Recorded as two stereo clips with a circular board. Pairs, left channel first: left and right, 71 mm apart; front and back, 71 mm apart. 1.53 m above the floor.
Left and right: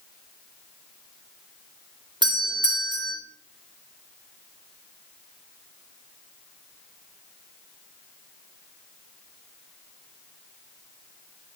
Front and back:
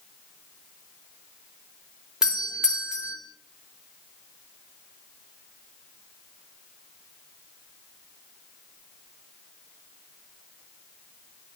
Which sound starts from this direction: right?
A doorbell, at 2.2 s.